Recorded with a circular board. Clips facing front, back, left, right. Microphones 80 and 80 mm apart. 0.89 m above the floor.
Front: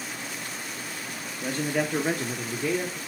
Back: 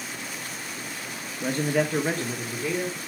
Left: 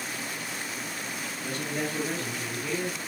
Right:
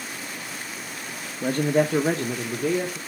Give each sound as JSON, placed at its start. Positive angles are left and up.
{"t": 1.4, "sound": "a man speaking", "azimuth_deg": -105, "distance_m": 1.3}